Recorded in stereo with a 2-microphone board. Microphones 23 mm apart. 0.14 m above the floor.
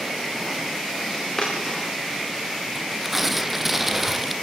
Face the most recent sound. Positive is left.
turn(degrees=-10)  # may be behind; listen again after turning